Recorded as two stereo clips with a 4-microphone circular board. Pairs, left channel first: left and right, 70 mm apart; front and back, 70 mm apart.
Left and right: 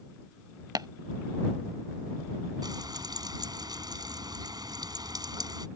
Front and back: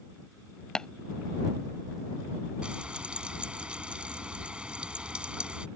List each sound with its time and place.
0.8 s tapping: 75° right
2.6 s frying: 105° right